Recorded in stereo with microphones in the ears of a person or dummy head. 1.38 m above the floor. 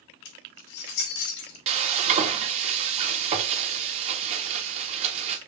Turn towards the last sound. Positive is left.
turn(degrees=-35)  # may be behind; listen again after turning